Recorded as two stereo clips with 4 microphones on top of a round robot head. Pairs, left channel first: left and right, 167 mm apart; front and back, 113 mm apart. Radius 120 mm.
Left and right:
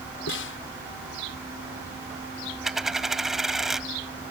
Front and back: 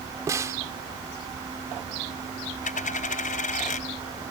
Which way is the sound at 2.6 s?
Straight ahead.